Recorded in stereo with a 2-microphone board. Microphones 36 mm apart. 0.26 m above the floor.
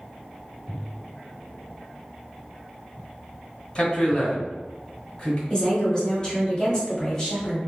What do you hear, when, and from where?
3.8 s a man speaking: 30° left (ahead or behind), 1.4 m
5.5 s a woman speaking: 25° left (ahead or behind), 1.5 m